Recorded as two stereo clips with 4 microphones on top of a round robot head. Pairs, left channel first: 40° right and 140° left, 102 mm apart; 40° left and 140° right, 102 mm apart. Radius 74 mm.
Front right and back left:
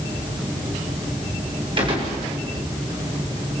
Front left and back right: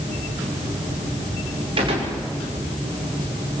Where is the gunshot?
Straight behind, 6 m.